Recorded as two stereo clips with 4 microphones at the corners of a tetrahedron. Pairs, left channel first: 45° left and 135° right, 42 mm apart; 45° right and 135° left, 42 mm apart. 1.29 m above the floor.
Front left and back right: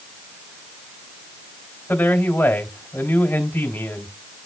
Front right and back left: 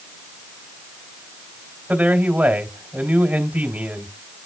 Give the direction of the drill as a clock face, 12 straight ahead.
No drill in this recording.